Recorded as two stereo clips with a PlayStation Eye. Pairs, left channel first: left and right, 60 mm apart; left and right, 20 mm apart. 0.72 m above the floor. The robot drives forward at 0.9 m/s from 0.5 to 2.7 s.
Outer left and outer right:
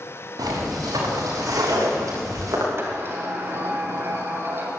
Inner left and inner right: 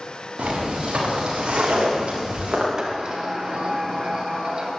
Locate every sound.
0.4 s footsteps: 85° right, 8 m; by 2.7 s 70° right (ahead or behind), 6.5 m
2.8 s a sliding door: 40° right (ahead or behind), 2.5 m